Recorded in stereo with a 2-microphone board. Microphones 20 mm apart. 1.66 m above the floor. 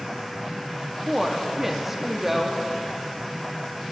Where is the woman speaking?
10° right (ahead or behind), 0.7 m.